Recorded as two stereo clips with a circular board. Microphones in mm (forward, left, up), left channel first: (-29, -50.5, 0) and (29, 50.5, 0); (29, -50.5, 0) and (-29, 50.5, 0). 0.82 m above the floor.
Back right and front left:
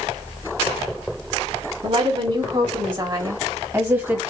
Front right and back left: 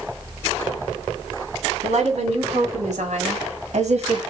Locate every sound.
1.8 s a woman speaking: 100° left, 3 m; by 4.2 s 135° left, 1.4 m